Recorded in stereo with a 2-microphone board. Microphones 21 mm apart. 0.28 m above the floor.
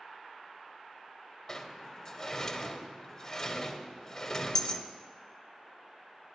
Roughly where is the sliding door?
Left.